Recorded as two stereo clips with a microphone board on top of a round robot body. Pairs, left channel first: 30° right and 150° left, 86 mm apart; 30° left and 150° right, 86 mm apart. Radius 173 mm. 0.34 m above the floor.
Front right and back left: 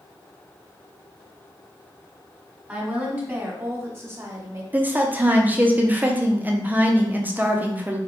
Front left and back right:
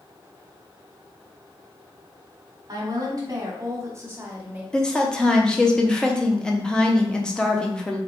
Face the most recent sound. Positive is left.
turn(degrees=100)